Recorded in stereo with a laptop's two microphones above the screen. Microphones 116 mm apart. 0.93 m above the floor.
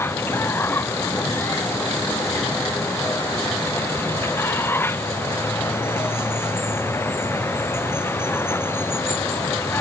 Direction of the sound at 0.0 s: 20° left (ahead or behind).